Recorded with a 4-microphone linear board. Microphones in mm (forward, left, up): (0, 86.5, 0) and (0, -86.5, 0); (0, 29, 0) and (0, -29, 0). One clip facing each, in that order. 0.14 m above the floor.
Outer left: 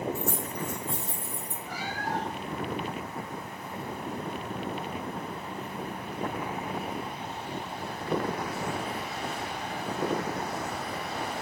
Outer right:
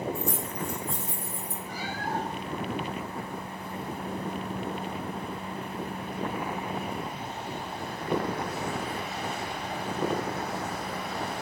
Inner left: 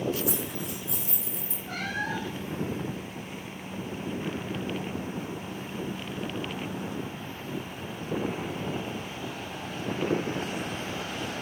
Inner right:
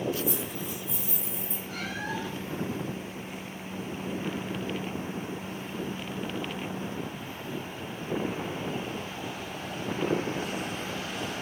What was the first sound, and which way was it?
Keys jangling, 65° left (ahead or behind).